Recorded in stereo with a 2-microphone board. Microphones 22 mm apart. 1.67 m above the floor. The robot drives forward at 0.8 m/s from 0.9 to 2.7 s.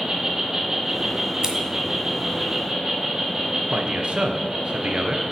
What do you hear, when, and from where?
0.0 s an insect: 30° right (ahead or behind), 3.5 m; by 5.3 s 20° right (ahead or behind), 5 m
1.4 s scissors: 30° right (ahead or behind), 1.7 m
3.7 s a man speaking: 55° right (ahead or behind), 1.2 m